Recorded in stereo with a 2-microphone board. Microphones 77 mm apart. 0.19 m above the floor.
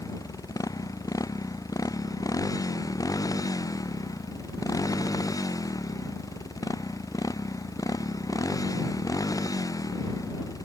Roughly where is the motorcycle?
Left.